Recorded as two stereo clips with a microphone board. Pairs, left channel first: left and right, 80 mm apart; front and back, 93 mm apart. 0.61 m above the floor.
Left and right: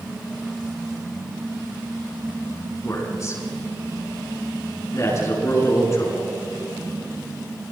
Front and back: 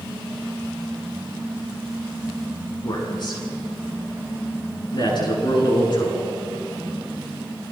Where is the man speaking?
40° left, 7.5 m.